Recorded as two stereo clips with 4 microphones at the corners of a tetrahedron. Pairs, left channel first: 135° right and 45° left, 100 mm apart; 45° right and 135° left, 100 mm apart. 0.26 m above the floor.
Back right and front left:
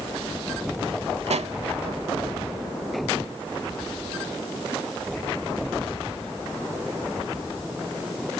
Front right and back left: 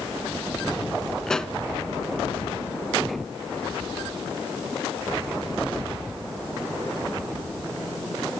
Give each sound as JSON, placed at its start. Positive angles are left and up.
{"t": 1.3, "sound": "a pop", "azimuth_deg": 40, "distance_m": 0.6}